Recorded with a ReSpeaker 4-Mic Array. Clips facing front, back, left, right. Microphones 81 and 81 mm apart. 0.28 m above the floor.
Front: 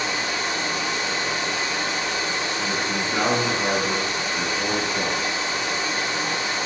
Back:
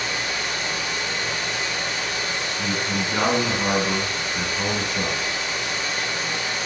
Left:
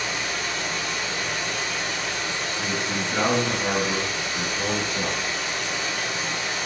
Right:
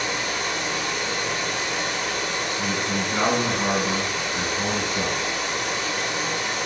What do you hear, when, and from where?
0.0 s running water: 65° right, 1.0 m
2.6 s a man speaking: 140° right, 2.0 m